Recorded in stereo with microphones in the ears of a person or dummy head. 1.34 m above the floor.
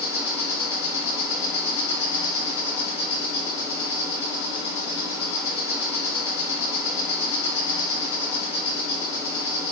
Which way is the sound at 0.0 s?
15° right (ahead or behind).